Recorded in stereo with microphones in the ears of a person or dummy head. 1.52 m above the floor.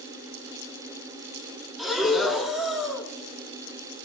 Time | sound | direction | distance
1.8 | breathing | centre (ahead or behind) | 2 m